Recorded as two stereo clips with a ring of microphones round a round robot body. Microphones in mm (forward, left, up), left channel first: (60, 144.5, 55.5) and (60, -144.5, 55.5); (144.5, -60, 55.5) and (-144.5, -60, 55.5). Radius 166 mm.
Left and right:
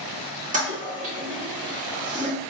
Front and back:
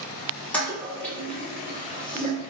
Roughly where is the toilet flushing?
Right.